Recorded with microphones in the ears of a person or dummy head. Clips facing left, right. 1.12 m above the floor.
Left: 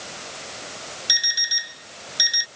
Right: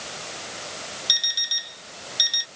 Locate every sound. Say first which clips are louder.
1.1 s an alarm clock: left 3 dB; 20° left (ahead or behind)